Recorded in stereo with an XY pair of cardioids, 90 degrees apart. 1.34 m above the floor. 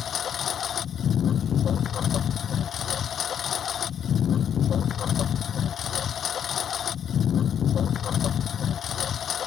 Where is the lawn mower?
60° left.